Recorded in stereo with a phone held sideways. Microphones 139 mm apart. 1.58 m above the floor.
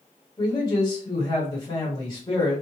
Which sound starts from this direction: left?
A man speaking, at 0.4 s.